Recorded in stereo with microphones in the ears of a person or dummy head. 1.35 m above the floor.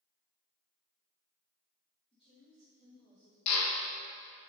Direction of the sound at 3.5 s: 85° left.